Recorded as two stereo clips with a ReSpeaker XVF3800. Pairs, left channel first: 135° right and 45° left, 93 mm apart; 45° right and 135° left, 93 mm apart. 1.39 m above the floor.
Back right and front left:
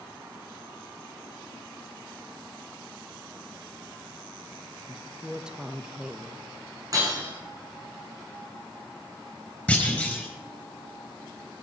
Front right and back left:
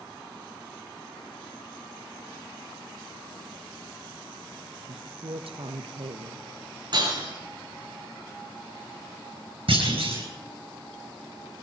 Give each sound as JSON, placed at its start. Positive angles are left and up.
{"t": 4.9, "sound": "a woman speaking", "azimuth_deg": 125, "distance_m": 1.1}
{"t": 6.9, "sound": "breaking glass", "azimuth_deg": 95, "distance_m": 8.0}
{"t": 9.7, "sound": "a clunk", "azimuth_deg": 145, "distance_m": 5.0}